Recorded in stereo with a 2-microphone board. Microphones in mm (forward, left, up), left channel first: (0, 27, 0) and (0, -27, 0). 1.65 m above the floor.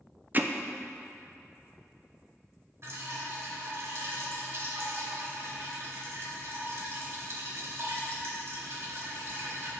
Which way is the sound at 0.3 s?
35° right (ahead or behind).